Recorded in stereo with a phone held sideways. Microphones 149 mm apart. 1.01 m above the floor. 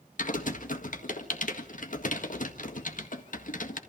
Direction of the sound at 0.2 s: 60° left (ahead or behind).